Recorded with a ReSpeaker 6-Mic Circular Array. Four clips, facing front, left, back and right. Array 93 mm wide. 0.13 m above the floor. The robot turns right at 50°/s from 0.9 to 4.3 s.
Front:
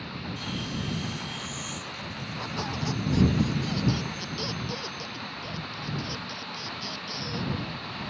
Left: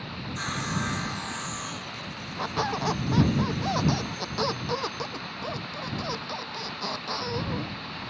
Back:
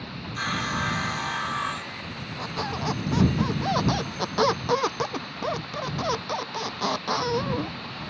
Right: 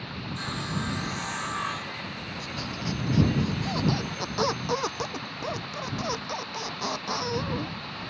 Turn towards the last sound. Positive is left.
turn(degrees=-170)